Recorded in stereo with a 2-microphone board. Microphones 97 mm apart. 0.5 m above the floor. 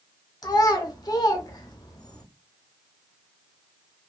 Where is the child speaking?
40° left (ahead or behind), 0.7 m.